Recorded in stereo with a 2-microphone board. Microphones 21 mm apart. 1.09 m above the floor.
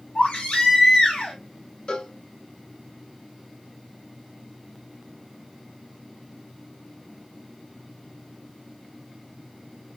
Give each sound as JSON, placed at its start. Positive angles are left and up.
{"t": 0.1, "sound": "a baby crying", "side_deg": 80, "distance_m": 1.9}
{"t": 1.9, "sound": "a cowbell", "side_deg": 45, "distance_m": 0.5}